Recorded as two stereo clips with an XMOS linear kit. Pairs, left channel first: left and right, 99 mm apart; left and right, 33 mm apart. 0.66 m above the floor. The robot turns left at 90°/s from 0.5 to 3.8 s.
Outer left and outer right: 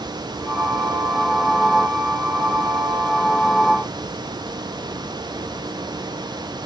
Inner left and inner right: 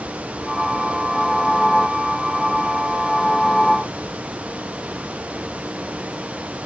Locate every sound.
Only background noise.